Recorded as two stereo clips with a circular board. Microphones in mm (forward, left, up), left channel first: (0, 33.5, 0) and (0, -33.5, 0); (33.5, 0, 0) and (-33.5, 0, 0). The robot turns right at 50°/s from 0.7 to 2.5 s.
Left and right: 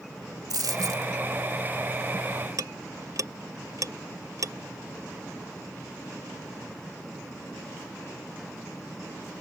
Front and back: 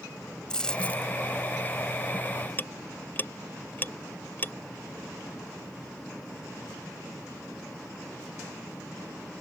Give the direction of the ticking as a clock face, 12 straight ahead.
2 o'clock.